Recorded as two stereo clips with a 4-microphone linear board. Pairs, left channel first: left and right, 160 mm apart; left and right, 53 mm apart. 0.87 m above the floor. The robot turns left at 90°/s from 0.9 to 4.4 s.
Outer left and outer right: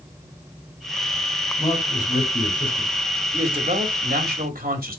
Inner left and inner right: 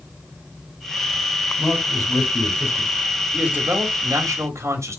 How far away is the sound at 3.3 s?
About 2.5 m.